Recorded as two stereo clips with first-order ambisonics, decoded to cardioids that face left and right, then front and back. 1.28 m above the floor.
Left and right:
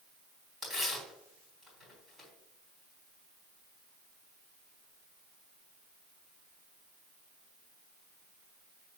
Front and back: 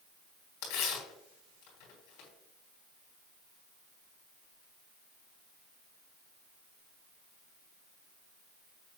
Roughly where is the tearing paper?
Ahead.